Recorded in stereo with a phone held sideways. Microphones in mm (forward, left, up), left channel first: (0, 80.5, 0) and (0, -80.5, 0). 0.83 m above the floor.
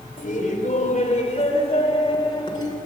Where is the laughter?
55° left (ahead or behind), 3.5 m; by 2.8 s 25° left (ahead or behind), 4 m.